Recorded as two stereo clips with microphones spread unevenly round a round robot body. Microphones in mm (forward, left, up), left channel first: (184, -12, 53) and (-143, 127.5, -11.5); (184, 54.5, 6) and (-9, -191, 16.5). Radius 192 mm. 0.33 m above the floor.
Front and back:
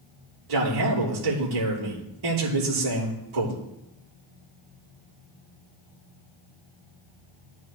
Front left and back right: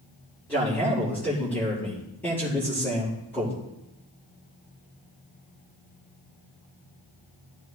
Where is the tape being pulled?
I don't hear tape being pulled.